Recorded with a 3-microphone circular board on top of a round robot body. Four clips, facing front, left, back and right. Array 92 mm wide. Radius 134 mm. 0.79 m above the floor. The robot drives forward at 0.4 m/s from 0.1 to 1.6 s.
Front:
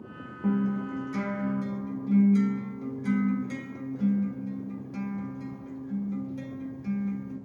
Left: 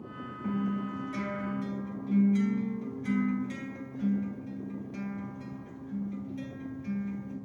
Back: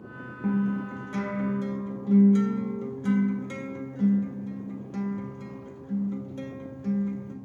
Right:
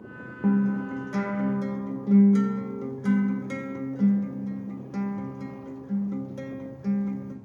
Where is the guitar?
90° right, 1.5 m; by 7.4 s 105° right, 1.6 m.